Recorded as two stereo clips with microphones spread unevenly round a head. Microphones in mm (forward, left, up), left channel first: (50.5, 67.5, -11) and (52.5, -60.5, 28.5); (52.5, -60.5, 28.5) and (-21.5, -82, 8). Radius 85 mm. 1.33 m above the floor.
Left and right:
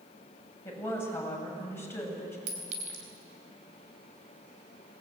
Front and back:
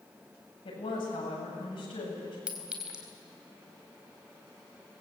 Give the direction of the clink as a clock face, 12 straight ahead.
3 o'clock.